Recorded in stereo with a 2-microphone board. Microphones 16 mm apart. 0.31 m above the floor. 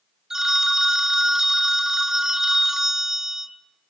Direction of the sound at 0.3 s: 40° right (ahead or behind).